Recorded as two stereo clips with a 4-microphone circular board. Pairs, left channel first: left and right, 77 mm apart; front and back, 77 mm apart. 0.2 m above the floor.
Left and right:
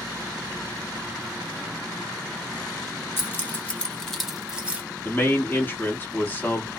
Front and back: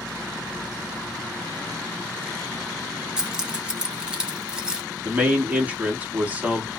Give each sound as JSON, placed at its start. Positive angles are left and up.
{"t": 3.2, "sound": "keys jangling", "azimuth_deg": 110, "distance_m": 1.0}
{"t": 5.0, "sound": "a man speaking", "azimuth_deg": 130, "distance_m": 1.1}